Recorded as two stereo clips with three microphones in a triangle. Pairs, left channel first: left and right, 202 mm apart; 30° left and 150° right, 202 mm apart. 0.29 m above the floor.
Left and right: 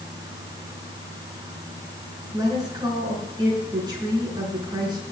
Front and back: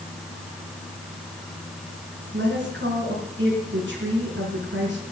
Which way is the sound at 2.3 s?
160° right.